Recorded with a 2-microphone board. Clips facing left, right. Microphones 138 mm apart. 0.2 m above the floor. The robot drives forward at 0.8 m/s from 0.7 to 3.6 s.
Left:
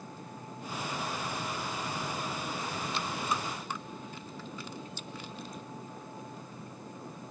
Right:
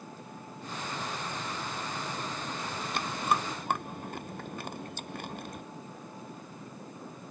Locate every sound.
2.9 s chewing: 55° right (ahead or behind)